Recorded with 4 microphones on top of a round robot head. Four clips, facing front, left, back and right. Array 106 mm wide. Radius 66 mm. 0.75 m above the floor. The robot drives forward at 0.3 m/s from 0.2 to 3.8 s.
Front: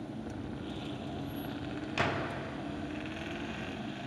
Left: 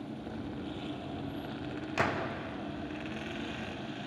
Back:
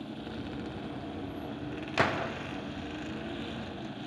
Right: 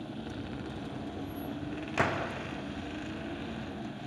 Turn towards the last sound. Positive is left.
turn(degrees=-170)